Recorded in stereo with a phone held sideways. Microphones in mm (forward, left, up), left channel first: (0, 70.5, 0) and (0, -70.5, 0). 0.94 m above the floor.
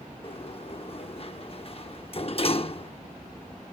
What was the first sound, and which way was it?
A sliding door, 45° left (ahead or behind).